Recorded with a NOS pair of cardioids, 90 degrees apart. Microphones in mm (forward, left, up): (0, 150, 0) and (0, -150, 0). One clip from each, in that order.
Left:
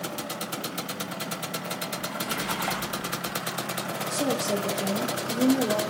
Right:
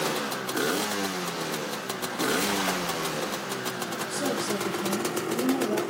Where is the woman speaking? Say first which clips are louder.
Left 3 dB; 25° left, 3.5 m.